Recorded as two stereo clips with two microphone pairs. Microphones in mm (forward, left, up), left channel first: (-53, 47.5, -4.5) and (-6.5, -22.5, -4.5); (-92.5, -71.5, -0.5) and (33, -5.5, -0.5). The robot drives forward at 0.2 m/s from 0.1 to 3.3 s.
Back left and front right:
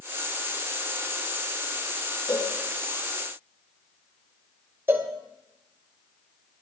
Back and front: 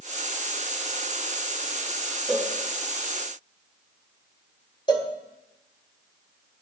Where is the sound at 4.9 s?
110° right, 2 m.